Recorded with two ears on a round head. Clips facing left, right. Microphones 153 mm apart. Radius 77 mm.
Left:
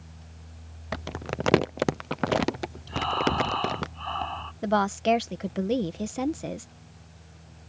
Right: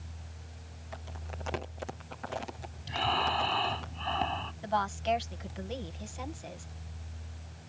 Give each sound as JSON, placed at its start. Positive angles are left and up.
{"t": 0.9, "sound": "crumpling", "side_deg": 70}
{"t": 2.9, "sound": "breathing", "side_deg": -20}
{"t": 4.6, "sound": "a woman speaking", "side_deg": 65}